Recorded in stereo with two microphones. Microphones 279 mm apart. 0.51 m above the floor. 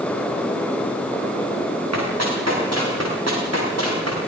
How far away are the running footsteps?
About 9 m.